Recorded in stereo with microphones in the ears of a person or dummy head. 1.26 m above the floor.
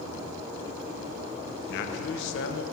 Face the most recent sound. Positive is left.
turn(degrees=65)  # may be behind; listen again after turning